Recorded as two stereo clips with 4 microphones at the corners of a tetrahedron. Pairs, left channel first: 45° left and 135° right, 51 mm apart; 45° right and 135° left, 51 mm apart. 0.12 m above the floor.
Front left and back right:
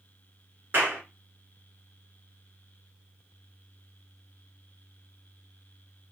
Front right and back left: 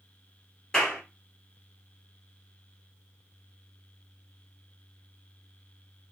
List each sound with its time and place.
0.7 s a clap: 120° right, 1.7 m